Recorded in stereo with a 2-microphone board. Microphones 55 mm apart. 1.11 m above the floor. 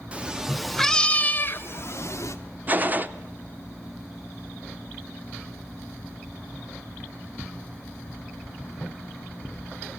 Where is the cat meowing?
20° right (ahead or behind), 1.0 m; by 2.4 s 65° left (ahead or behind), 1.3 m.